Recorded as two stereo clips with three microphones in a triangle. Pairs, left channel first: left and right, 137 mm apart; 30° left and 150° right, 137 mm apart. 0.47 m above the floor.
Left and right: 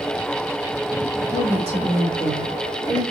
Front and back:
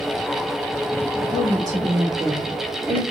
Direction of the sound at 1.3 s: 100° right.